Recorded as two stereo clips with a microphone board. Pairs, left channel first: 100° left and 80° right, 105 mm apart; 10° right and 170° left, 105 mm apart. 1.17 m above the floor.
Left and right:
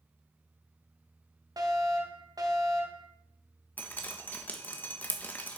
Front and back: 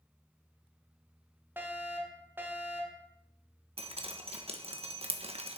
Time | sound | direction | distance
1.6 | a fire alarm | 125° right | 2 m
3.8 | dripping | 175° left | 1.3 m